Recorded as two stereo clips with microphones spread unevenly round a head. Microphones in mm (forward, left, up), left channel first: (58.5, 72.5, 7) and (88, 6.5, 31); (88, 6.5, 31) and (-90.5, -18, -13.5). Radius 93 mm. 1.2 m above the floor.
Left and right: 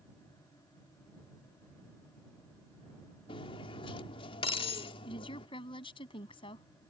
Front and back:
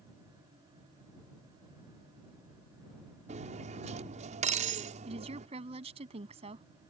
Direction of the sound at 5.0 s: 125° left.